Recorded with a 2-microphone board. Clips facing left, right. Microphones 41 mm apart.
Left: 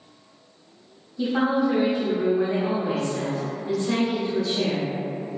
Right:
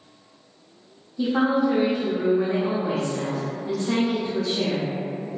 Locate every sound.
1.2 s a woman speaking: 10° right (ahead or behind), 0.7 m